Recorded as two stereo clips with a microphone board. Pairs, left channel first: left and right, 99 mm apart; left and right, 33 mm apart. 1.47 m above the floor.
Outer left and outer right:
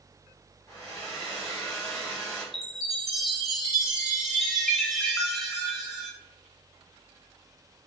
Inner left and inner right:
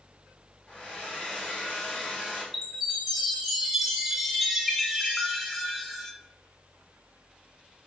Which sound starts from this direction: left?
A hair dryer, at 0.7 s.